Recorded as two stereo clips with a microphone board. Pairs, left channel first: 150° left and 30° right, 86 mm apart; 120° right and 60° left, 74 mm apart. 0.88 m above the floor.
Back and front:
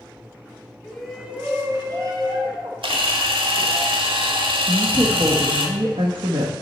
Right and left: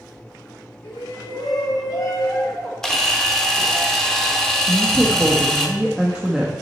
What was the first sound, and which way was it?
A shout, 135° right.